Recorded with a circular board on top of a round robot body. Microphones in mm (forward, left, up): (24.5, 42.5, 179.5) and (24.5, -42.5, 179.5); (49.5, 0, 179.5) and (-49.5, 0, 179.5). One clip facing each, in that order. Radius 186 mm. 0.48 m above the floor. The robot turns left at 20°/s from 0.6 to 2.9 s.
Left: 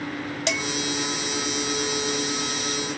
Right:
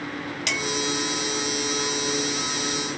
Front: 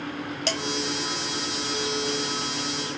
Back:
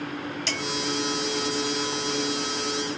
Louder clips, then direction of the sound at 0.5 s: Left 4 dB, front 3 dB; 30° left.